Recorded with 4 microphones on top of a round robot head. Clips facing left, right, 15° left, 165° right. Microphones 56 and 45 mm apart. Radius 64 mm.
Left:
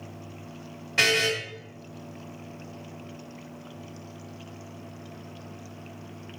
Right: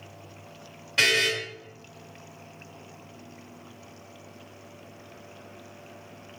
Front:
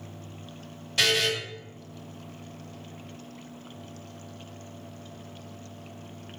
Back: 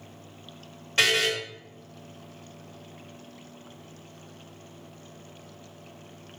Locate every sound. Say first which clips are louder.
1.0 s a buzzer: even, back 1 dB; 155° left, 1.3 m